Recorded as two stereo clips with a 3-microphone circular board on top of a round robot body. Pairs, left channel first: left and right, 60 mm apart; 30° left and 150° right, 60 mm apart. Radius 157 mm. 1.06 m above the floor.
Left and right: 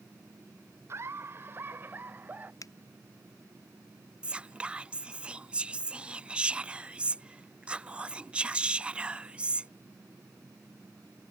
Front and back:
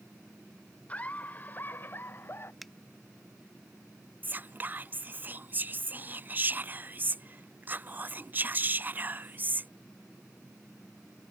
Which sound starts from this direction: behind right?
Whispering, at 4.2 s.